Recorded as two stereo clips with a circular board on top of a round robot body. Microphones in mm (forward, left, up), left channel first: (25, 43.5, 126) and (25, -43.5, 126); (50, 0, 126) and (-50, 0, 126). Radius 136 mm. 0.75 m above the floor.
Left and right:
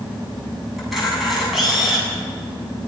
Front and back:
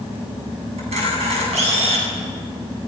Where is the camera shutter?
Straight behind, 8 m.